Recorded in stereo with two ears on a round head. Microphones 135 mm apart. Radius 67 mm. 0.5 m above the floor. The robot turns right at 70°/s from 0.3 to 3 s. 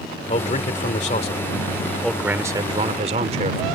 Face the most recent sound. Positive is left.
turn(degrees=-115)